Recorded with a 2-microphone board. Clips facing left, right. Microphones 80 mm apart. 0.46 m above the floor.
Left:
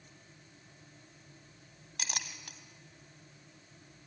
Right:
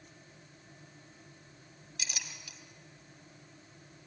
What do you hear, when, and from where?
2.0 s a clink: 55° left (ahead or behind), 1.6 m